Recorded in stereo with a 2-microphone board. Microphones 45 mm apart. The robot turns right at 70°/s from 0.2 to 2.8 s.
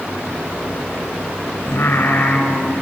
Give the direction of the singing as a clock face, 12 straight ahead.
9 o'clock.